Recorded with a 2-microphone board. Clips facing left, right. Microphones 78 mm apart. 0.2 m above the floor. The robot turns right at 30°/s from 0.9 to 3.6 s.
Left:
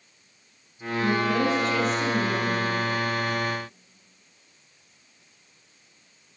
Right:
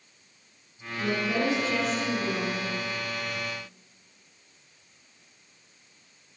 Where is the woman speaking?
25° right, 1.9 m; by 2.6 s 25° left, 1.9 m.